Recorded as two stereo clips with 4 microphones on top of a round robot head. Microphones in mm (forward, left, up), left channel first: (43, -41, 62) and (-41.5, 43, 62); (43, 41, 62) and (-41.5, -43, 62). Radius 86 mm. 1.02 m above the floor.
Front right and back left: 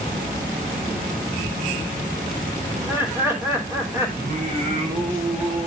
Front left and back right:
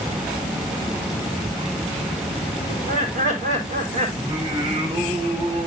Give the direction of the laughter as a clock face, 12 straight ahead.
5 o'clock.